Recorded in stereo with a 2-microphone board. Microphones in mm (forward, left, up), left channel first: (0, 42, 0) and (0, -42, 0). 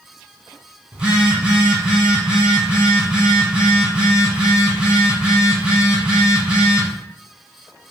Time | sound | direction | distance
0.9 | a phone buzzing | 10° right (ahead or behind) | 1.8 m